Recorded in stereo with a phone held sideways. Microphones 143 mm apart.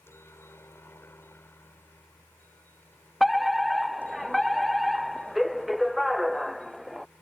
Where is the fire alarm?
Centre (ahead or behind).